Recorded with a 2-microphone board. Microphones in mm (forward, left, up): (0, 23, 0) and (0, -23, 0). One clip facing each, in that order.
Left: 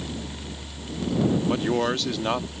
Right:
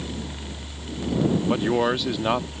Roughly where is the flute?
I don't hear a flute.